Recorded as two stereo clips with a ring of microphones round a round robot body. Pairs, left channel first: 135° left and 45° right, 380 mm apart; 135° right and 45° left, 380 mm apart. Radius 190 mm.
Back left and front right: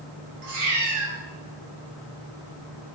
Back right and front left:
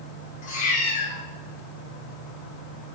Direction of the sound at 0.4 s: 65° right.